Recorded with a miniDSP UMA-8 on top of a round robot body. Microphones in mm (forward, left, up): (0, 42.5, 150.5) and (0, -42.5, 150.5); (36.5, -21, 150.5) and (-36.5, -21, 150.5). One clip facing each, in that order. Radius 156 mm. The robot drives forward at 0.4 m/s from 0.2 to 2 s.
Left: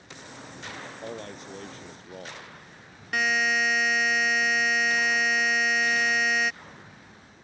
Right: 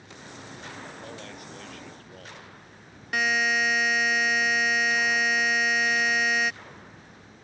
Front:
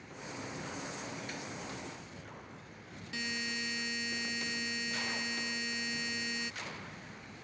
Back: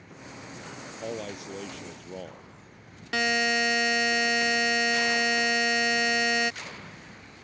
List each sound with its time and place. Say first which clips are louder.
1.0 s a man speaking: left 3 dB, back 7 dB; 155° left
3.1 s a buzzer: even, back 14 dB; straight behind